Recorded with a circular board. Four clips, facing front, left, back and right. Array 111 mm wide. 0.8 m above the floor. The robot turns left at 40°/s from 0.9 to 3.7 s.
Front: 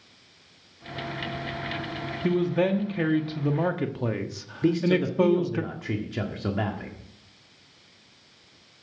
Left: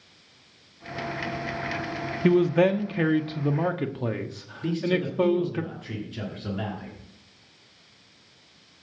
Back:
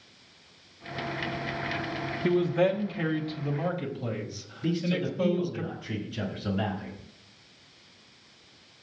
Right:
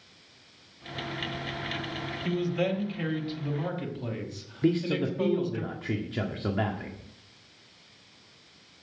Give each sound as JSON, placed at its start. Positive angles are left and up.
{"t": 2.2, "sound": "a man speaking", "azimuth_deg": 100, "distance_m": 1.1}
{"t": 4.6, "sound": "a man speaking", "azimuth_deg": -40, "distance_m": 1.6}